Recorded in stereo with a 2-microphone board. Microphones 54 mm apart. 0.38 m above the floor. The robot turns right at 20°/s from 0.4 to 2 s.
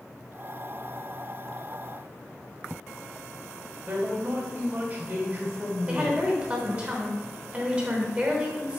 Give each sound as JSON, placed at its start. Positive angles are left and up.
{"t": 3.9, "sound": "a man speaking", "side_deg": -35, "distance_m": 1.3}
{"t": 5.9, "sound": "a woman speaking", "side_deg": -20, "distance_m": 1.0}